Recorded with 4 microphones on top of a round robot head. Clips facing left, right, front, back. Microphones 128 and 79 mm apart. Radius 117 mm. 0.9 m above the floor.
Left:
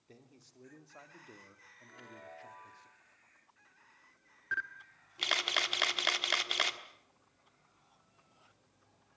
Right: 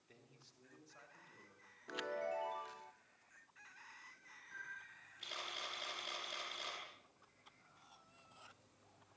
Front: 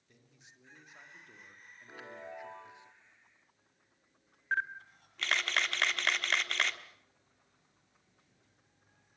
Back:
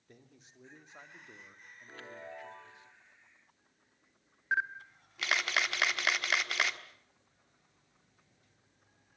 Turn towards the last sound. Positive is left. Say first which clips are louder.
# left 13 dB, back 1 dB
turn(degrees=95)